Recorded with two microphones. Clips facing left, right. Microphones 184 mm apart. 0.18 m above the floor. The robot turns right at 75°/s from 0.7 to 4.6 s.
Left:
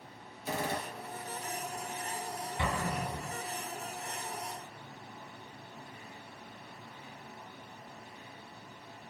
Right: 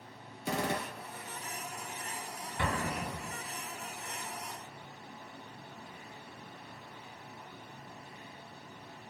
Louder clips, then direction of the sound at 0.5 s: Right 2 dB; 75° right (ahead or behind).